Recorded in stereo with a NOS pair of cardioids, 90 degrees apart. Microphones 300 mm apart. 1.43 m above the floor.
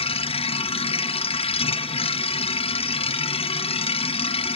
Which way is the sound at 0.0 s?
20° left.